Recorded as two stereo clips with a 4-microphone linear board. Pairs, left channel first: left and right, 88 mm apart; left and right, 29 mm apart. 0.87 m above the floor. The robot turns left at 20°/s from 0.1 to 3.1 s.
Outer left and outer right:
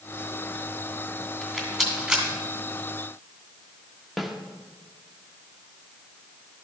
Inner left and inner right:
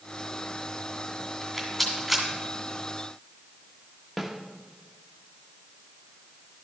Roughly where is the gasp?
No gasp in this recording.